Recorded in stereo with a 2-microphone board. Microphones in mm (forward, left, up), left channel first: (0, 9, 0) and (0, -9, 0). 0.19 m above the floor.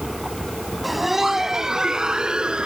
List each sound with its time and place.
0.8 s laughter: 5° right (ahead or behind); by 2.7 s 60° right (ahead or behind)